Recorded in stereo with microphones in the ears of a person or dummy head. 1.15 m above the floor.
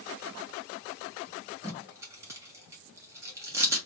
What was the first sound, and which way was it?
Tape being pulled, 15° right (ahead or behind).